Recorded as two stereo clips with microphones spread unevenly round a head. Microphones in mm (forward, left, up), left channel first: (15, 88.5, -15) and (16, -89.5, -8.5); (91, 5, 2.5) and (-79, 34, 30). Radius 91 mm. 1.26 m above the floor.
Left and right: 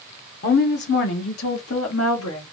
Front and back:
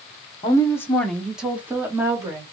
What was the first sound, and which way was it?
A woman speaking, 50° left.